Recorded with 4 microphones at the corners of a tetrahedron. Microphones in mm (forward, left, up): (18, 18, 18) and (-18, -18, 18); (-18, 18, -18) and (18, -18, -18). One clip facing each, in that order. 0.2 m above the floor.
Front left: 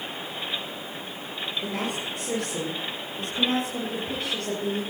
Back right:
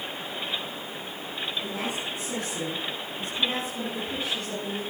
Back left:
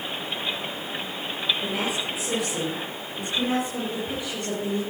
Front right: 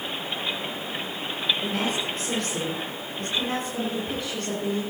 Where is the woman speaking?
55° left, 4.5 m.